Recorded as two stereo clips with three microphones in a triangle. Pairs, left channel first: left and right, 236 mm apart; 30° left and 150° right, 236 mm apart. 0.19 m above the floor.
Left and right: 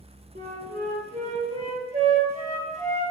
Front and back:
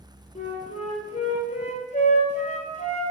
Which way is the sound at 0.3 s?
30° right.